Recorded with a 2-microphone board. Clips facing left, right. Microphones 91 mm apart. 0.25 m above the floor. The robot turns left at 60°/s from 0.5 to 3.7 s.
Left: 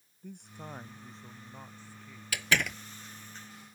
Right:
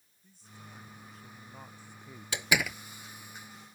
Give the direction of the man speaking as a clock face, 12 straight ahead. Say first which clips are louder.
Left 8 dB; 10 o'clock.